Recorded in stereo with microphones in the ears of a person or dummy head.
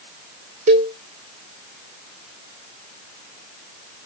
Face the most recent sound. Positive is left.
turn(degrees=-45)  # may be behind; listen again after turning